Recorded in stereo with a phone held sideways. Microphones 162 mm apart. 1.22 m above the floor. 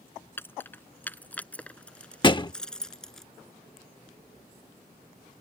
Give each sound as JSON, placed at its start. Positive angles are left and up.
{"t": 0.4, "sound": "keys jangling", "side_deg": 15}
{"t": 2.2, "sound": "a thud", "side_deg": 30}